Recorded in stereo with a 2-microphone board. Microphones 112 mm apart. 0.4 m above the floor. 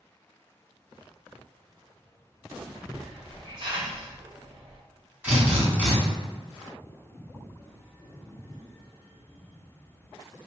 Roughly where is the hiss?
Right.